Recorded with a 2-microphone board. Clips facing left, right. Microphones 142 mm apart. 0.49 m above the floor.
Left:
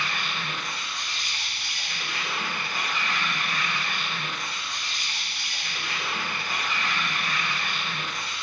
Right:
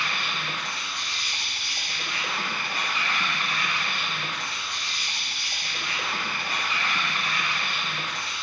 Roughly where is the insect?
Right.